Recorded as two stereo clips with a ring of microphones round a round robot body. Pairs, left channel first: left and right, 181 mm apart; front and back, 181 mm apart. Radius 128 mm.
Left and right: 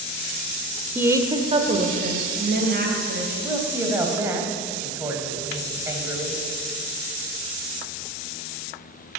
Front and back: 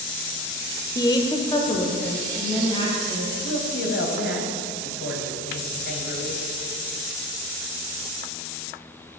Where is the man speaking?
15° right, 3 m.